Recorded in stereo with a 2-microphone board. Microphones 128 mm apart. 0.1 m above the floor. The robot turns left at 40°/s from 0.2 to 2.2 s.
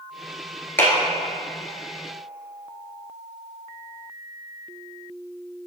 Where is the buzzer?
No buzzer in this recording.